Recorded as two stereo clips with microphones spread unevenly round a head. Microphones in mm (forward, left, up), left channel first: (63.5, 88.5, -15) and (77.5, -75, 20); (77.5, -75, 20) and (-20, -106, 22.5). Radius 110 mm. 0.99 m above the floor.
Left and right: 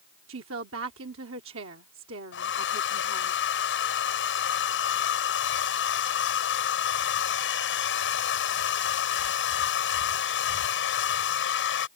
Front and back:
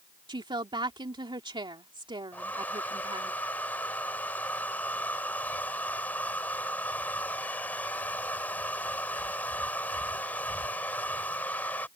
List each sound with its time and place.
0.3 s a woman speaking: 120° right
2.3 s a hair dryer: 100° left